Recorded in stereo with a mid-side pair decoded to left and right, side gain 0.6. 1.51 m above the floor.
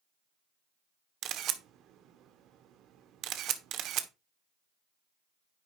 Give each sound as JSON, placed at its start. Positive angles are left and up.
{"t": 1.2, "sound": "a camera shutter", "azimuth_deg": -60, "distance_m": 1.3}